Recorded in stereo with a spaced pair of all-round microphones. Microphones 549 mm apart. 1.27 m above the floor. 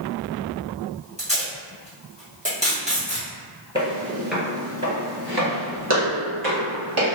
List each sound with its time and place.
1.2 s tape being pulled: 15° right (ahead or behind), 1.3 m
3.8 s footsteps: 10° left (ahead or behind), 1.4 m; by 7.2 s 50° right (ahead or behind), 2.0 m